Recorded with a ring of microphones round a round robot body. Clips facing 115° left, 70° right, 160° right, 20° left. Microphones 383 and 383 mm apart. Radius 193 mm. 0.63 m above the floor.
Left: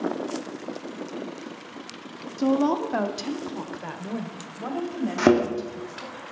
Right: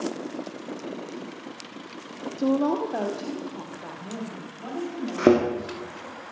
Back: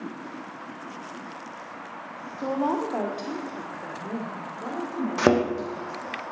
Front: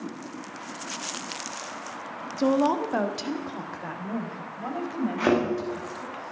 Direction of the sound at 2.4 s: 40° left.